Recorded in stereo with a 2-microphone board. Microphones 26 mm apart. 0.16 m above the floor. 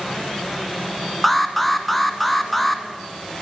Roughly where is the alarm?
Centre.